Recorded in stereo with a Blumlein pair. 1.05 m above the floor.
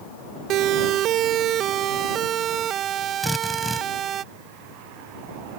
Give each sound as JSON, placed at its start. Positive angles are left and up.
{"t": 0.5, "sound": "a siren", "azimuth_deg": -35}
{"t": 3.2, "sound": "a drill", "azimuth_deg": 5}